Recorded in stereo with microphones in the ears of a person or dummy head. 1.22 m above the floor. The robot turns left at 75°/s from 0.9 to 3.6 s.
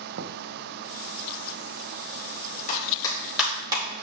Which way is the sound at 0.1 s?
80° right.